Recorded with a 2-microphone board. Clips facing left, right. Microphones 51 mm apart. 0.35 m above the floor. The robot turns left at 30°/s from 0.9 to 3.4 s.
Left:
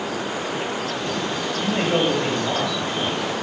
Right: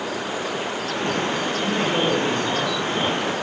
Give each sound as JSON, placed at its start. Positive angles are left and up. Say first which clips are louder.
{"t": 1.6, "sound": "a man speaking", "louder": "left 2 dB", "azimuth_deg": 105, "distance_m": 2.0}